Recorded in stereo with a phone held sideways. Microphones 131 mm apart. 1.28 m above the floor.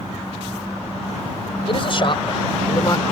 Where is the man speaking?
45° left (ahead or behind); by 3.0 s 35° left (ahead or behind).